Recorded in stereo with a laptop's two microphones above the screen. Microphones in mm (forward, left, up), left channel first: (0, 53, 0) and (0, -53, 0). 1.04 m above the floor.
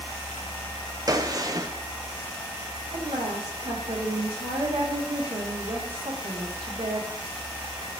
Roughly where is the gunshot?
Right.